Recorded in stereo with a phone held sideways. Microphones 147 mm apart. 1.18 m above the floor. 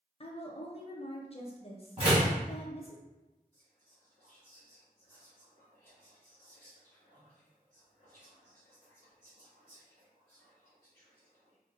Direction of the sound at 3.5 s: 70° right (ahead or behind).